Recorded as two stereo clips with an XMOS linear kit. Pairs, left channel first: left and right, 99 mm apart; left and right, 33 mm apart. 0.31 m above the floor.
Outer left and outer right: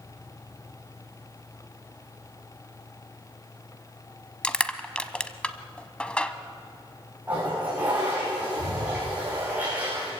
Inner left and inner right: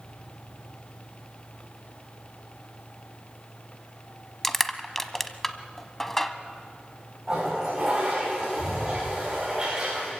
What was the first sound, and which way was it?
Crushing, 10° left (ahead or behind).